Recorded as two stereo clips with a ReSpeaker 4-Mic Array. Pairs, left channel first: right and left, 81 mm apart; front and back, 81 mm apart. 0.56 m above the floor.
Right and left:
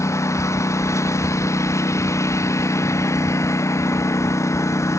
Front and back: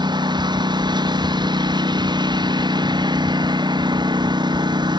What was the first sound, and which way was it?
A lawn mower, 145° right.